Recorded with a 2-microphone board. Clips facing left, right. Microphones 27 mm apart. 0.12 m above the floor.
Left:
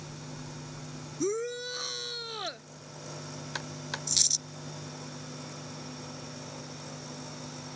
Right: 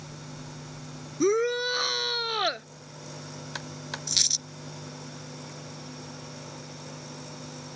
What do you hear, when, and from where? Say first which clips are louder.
1.2 s a shout: right 8 dB; 40° right (ahead or behind)
4.1 s a dropped coin: right 4 dB; 25° right (ahead or behind)